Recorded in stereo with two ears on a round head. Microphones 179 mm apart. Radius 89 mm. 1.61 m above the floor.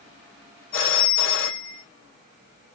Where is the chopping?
No chopping in this recording.